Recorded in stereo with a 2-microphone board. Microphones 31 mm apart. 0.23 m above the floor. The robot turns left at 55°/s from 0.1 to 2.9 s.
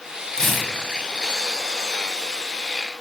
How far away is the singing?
I don't hear singing.